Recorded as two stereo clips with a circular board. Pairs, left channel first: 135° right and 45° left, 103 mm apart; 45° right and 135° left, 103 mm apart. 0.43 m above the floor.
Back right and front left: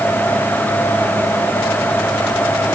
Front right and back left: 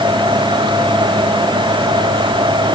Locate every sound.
Only background noise.